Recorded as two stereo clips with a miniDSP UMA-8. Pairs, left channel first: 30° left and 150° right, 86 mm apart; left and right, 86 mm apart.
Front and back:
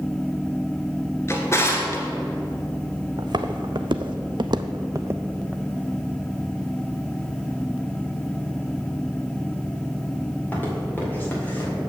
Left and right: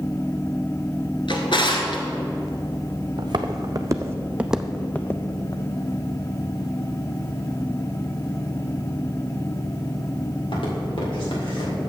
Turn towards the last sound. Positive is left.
turn(degrees=95)